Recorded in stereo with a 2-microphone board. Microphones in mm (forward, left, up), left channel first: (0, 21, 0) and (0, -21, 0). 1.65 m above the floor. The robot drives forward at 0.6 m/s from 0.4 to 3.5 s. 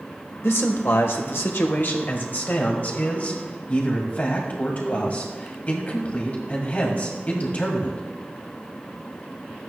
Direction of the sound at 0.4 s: 75° left (ahead or behind).